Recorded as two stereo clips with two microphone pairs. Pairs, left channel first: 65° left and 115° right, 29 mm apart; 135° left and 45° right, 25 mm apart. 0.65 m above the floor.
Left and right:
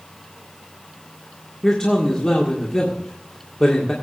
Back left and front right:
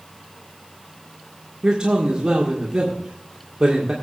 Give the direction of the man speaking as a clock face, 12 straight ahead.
12 o'clock.